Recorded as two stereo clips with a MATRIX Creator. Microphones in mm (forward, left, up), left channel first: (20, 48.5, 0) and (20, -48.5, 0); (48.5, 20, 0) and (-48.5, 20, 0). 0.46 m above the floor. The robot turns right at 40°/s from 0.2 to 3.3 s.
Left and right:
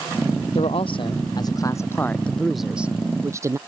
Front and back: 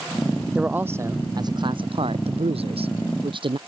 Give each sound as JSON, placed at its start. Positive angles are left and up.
{"t": 0.6, "sound": "a man speaking", "azimuth_deg": 100}